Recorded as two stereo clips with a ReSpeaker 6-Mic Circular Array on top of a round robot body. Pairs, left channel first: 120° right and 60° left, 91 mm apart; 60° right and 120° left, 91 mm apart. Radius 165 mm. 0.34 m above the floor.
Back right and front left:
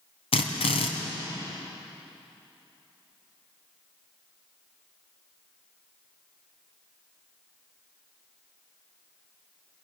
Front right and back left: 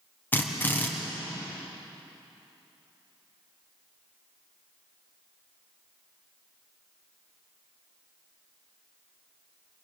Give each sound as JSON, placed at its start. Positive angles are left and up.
{"t": 0.3, "sound": "a drill", "azimuth_deg": -130, "distance_m": 2.5}